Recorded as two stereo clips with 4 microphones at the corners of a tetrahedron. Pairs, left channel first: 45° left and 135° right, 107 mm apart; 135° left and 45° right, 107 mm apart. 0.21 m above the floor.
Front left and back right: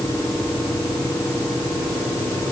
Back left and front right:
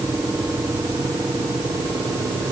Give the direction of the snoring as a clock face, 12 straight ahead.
No snoring in this recording.